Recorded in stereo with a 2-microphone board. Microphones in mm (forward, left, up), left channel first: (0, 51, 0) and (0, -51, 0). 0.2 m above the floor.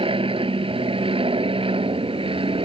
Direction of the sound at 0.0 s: 60° right (ahead or behind).